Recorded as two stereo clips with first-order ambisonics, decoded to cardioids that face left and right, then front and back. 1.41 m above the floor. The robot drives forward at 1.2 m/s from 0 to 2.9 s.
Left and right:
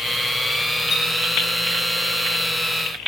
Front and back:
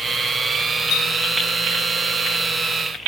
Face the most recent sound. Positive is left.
turn(degrees=115)